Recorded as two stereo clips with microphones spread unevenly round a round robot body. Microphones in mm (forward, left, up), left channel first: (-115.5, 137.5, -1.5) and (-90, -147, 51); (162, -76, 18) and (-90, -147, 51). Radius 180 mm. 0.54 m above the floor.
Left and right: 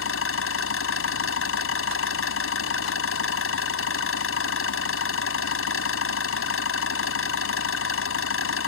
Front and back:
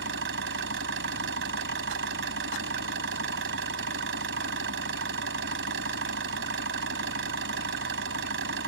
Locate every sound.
0.0 s an engine running: 135° left